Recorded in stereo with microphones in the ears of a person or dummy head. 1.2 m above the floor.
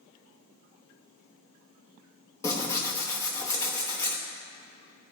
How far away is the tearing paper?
About 1.1 m.